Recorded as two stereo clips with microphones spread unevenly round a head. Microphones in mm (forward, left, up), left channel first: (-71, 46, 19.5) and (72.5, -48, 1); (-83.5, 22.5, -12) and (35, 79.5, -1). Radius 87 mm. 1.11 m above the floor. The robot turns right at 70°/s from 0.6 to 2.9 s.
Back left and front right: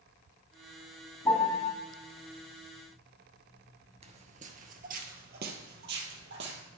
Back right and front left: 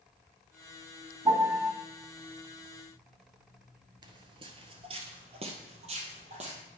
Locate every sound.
1.2 s a piano: 75° left, 1.8 m; by 1.7 s 110° left, 1.8 m
4.0 s footsteps: 10° left, 1.3 m; by 6.6 s 10° right, 2.5 m